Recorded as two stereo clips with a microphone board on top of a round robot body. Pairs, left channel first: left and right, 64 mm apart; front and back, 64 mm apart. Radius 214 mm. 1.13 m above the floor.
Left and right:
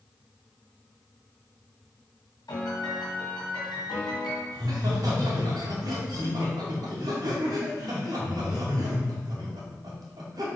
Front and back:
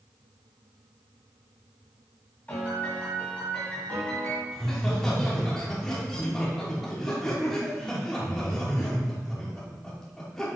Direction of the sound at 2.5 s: 70° left.